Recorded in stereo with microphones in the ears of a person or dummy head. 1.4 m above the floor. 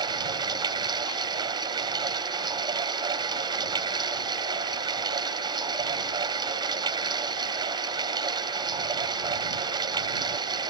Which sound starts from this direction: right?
Running water, at 0.0 s.